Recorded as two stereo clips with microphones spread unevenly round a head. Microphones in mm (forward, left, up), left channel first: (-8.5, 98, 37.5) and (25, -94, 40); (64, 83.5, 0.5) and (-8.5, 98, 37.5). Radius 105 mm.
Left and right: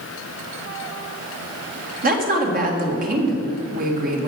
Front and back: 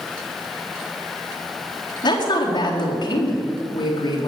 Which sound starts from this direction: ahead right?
A woman speaking, at 2.0 s.